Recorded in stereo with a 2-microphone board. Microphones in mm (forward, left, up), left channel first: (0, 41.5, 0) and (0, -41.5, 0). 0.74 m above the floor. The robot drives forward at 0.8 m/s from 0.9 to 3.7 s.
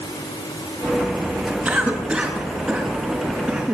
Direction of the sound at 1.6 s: 20° right (ahead or behind).